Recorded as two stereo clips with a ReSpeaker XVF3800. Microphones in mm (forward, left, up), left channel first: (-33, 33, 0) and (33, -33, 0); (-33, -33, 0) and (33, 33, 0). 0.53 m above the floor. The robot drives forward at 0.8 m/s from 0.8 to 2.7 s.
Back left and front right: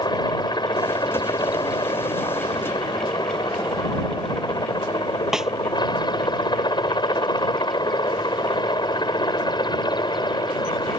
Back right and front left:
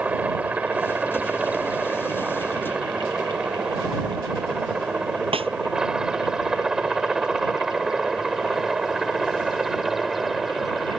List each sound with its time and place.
0.0 s a helicopter: 115° left; by 11.0 s 135° left
5.3 s a snare drum: 40° left